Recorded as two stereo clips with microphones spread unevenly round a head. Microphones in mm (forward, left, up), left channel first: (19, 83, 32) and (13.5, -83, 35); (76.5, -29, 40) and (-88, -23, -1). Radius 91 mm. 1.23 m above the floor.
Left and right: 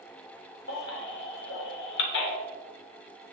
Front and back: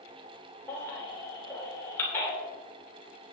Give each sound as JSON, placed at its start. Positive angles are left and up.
{"t": 0.7, "sound": "a baby crying", "azimuth_deg": 75, "distance_m": 3.0}